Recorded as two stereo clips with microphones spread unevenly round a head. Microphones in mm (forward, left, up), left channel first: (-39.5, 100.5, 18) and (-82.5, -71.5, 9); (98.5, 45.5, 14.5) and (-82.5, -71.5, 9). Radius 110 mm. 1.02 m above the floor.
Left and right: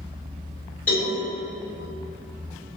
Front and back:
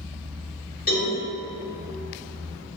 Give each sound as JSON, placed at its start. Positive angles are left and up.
{"t": 0.9, "sound": "a cowbell", "azimuth_deg": 5, "distance_m": 1.1}